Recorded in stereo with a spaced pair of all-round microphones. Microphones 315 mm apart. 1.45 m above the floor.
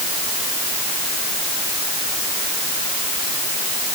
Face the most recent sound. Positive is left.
No sound to turn to.